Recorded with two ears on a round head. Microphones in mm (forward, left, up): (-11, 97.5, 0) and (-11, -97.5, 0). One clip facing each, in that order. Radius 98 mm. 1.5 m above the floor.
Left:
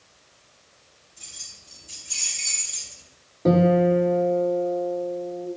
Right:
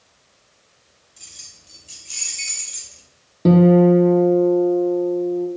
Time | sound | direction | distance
1.2 | keys jangling | 45° right (ahead or behind) | 5 m
3.5 | a guitar | 45° right (ahead or behind) | 1.5 m